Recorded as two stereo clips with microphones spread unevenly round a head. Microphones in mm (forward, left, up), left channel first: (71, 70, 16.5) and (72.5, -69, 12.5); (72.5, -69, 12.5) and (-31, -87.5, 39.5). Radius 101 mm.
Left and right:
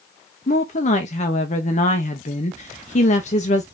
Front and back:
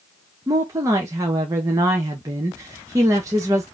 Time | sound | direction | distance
0.5 | a woman speaking | 120° left | 0.7 m